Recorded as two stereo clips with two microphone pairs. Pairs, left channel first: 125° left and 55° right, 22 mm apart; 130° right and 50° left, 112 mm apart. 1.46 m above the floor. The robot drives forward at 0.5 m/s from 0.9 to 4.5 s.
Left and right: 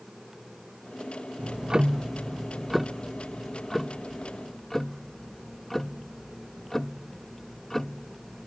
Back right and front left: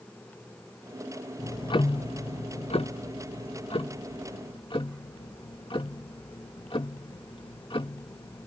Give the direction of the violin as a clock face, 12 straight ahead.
No violin in this recording.